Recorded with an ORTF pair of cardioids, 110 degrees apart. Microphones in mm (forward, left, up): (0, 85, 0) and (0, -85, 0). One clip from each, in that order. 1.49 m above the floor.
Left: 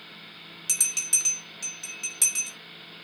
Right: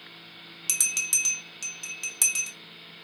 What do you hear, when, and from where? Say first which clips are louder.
0.7 s a bell: even; 25° right, 1.2 m